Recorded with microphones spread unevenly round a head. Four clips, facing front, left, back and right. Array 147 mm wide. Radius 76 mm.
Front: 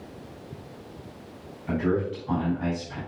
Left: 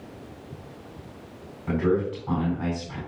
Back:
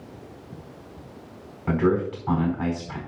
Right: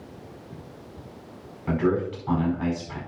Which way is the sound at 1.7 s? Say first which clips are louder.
Even, back 4 dB; 170° right.